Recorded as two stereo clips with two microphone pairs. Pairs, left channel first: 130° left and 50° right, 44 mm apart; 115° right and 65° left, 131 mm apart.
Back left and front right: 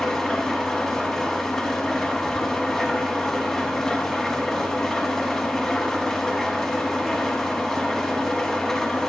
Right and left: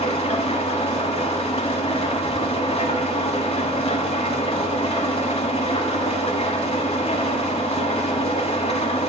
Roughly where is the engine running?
Behind right.